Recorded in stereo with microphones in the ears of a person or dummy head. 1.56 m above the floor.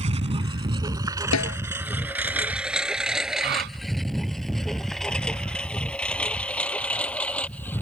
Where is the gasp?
60° right (ahead or behind).